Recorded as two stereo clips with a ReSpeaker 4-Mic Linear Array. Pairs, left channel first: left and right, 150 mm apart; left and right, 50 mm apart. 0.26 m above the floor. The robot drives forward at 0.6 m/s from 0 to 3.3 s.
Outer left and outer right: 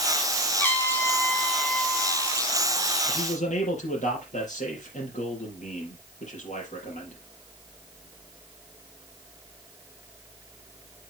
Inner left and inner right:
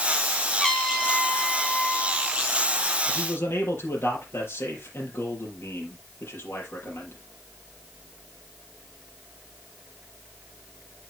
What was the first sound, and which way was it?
A trumpet, 15° left (ahead or behind).